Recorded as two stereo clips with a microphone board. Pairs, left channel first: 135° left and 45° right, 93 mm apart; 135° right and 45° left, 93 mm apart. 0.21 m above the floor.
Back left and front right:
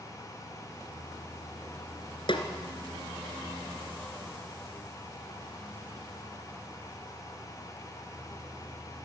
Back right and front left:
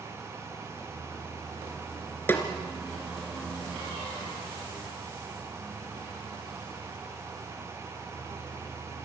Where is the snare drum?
155° left, 2.5 m.